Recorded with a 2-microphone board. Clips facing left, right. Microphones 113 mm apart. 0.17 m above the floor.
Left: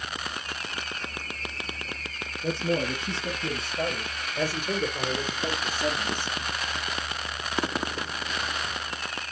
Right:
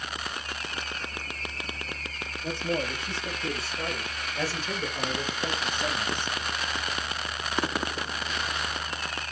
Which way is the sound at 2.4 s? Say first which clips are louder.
Left 3 dB; 30° left (ahead or behind).